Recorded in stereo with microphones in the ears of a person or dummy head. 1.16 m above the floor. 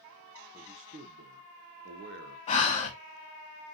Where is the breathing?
35° left (ahead or behind), 0.7 m.